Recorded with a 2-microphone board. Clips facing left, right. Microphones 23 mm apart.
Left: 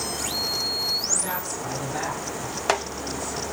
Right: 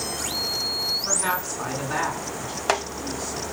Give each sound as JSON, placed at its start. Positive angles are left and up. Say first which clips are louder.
{"t": 1.0, "sound": "a woman speaking", "louder": "right 2 dB", "side_deg": -65, "distance_m": 9.0}